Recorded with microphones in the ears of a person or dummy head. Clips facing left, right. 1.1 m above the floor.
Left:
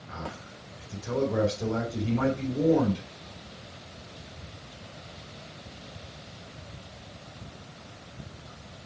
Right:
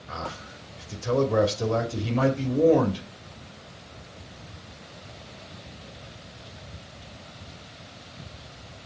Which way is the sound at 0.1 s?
85° right.